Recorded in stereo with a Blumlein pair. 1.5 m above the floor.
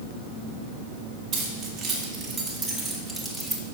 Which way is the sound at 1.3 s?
35° right.